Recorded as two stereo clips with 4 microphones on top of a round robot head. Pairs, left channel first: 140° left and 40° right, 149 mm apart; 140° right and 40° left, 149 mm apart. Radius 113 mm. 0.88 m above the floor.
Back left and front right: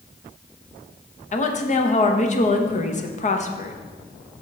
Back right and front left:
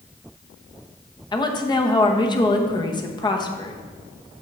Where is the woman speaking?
165° left, 1.1 m.